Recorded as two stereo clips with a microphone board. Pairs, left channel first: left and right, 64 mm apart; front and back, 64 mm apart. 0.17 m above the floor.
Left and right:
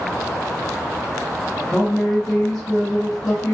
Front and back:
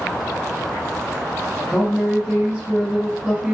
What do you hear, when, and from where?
1.7 s a woman speaking: 150° left, 1.3 m